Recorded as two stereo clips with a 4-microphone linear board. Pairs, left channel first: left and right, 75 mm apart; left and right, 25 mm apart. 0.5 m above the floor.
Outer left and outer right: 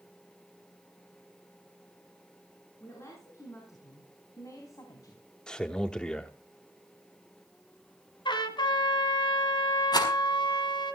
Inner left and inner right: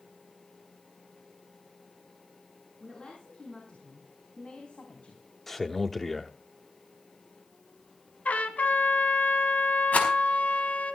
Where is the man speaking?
10° left (ahead or behind), 1.0 m.